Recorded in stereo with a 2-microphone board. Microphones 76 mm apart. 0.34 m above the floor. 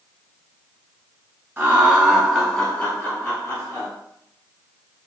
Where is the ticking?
I don't hear ticking.